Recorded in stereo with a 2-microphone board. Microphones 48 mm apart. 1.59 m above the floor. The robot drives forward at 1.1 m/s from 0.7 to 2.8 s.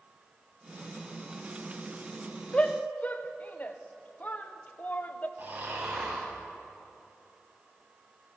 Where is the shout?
25° left (ahead or behind), 0.9 m; by 5.3 s 35° left (ahead or behind), 0.6 m.